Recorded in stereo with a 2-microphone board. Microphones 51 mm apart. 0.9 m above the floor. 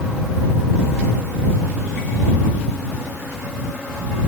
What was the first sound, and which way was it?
Only background noise.